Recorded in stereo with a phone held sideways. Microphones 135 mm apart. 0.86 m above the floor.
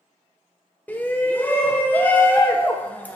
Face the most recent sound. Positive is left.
turn(degrees=10)  # may be behind; listen again after turning